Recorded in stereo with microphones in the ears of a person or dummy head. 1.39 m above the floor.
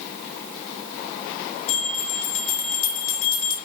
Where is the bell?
85° left, 1.7 m.